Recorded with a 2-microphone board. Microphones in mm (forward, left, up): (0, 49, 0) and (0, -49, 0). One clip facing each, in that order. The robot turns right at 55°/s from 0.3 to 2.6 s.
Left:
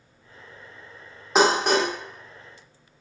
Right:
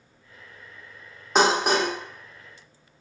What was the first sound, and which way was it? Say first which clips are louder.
Dishes clattering: left 1 dB; 5° left (ahead or behind).